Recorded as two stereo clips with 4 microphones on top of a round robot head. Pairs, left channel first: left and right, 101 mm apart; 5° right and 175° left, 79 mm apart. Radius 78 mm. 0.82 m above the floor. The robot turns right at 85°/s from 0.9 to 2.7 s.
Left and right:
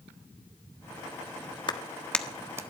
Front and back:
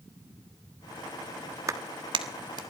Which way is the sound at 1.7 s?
130° left.